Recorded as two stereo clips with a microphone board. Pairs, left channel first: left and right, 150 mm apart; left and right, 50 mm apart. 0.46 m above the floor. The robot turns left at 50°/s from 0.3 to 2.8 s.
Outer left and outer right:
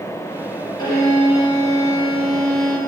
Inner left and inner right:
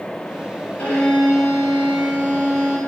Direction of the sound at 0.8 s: 30° left.